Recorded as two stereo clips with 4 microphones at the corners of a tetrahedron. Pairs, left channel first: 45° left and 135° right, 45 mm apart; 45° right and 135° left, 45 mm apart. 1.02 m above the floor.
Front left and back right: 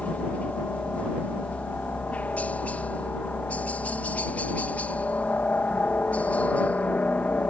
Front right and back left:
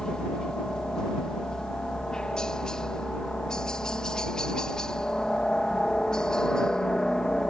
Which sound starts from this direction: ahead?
A helicopter, at 0.0 s.